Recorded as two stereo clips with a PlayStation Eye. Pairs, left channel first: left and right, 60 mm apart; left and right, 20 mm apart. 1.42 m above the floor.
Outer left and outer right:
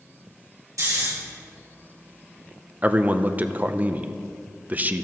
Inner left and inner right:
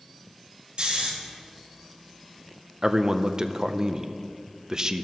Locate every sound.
0.8 s snoring: 60° right (ahead or behind), 2 m
2.8 s a man speaking: 30° right (ahead or behind), 0.6 m